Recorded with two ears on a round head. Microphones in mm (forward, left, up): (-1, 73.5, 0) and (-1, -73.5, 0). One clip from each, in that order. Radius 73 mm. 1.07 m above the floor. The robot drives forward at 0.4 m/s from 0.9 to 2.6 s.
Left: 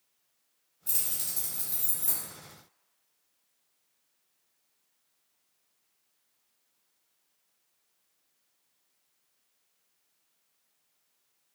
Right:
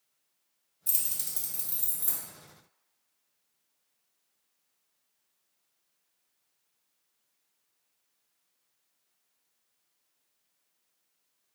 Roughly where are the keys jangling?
Right.